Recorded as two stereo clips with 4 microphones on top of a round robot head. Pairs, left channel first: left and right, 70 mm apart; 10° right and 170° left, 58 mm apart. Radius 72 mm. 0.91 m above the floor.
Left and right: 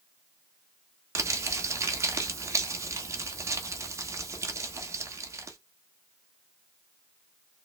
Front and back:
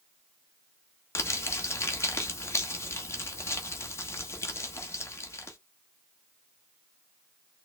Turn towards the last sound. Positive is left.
turn(degrees=-45)